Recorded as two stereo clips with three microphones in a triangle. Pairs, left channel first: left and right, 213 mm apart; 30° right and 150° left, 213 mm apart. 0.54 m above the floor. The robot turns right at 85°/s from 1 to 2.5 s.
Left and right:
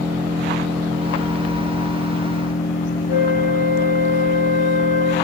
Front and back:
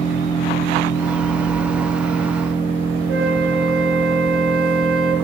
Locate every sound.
0.0 s an engine running: 60° right, 9.5 m; by 5.2 s 70° left, 9.5 m
3.1 s a flute: 140° left, 4.5 m